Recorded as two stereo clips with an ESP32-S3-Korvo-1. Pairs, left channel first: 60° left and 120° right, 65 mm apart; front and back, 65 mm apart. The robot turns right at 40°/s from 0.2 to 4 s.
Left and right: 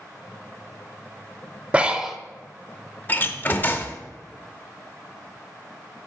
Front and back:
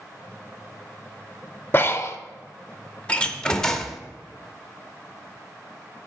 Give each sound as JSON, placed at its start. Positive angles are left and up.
{"t": 1.7, "sound": "breathing", "azimuth_deg": -55, "distance_m": 0.6}
{"t": 3.1, "sound": "a door slam", "azimuth_deg": 50, "distance_m": 0.6}